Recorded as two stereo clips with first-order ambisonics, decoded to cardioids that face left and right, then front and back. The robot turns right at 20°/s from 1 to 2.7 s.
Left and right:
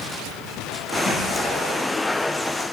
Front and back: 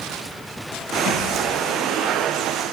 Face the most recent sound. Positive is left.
turn(degrees=40)